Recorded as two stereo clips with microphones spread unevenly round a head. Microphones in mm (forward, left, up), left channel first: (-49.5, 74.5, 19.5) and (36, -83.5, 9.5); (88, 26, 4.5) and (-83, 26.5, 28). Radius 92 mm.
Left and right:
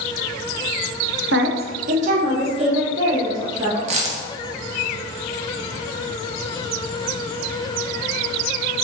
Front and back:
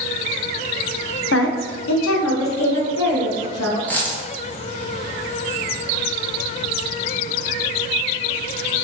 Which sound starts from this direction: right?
A dropped coin, at 3.9 s.